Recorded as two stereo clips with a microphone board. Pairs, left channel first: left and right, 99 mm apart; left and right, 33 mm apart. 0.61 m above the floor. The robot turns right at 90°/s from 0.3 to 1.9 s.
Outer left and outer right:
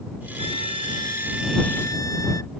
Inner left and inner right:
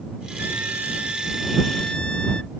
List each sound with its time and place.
0.4 s a trumpet: 100° right; by 2.5 s 35° left